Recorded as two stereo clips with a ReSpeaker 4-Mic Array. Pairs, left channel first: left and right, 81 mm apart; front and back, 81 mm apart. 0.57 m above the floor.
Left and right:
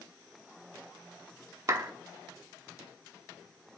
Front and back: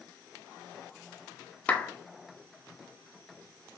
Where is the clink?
I don't hear a clink.